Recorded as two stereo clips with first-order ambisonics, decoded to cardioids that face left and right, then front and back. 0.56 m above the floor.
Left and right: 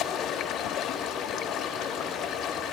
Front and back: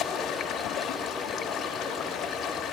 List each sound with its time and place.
0.0 s running water: 45° left, 1.4 m